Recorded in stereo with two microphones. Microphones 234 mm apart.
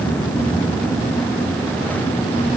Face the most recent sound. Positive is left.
No sound to turn to.